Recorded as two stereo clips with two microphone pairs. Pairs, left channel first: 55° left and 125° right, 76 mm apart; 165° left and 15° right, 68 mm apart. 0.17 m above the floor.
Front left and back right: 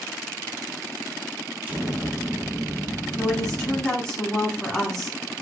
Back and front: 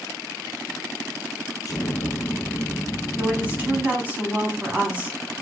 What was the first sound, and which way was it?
An explosion, 170° left.